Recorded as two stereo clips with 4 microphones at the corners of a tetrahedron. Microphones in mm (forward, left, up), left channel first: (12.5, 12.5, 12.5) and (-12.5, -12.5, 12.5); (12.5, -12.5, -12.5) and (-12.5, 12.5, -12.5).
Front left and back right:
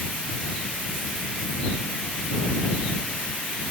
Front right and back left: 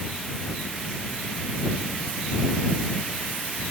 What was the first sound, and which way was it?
Only background noise.